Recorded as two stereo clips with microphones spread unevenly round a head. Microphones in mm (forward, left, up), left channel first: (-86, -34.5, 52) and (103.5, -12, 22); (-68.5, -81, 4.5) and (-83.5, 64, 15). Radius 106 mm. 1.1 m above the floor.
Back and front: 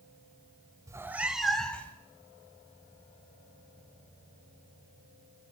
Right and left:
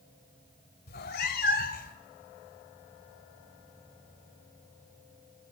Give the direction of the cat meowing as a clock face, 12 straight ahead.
2 o'clock.